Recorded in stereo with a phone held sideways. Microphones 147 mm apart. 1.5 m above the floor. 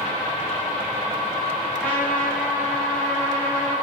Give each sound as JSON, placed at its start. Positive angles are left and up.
{"t": 1.8, "sound": "a trumpet", "side_deg": 10, "distance_m": 9.5}